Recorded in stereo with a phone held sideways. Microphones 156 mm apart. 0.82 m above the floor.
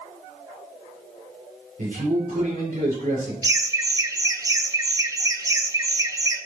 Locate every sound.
1.8 s a man speaking: 60° right (ahead or behind), 3 m
3.4 s laughter: 20° right (ahead or behind), 0.7 m